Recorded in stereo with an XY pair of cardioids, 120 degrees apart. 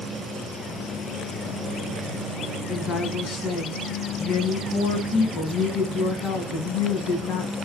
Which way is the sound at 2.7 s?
70° left.